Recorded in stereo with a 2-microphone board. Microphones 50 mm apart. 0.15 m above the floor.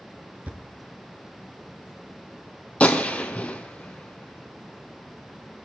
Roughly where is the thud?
Right.